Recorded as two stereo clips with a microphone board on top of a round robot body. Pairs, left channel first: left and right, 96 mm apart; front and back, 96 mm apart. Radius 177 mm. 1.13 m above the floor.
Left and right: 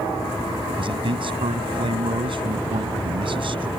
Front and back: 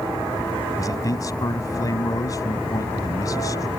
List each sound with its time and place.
0.8 s a man speaking: 55° right